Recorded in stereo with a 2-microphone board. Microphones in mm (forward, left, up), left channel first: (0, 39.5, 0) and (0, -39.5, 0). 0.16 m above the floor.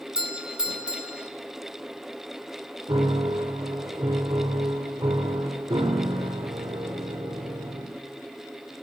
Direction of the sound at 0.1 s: 10° right (ahead or behind).